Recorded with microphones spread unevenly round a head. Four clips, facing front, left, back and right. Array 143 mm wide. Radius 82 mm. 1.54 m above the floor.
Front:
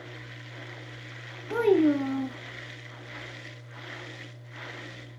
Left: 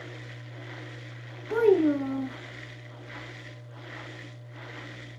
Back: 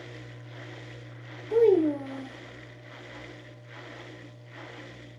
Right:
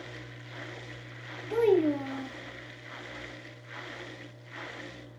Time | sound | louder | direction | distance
1.5 | a child speaking | left 3 dB, back 1 dB | 30° left | 1.6 m